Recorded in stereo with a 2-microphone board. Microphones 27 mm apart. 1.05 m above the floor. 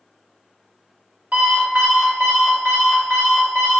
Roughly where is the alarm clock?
Right.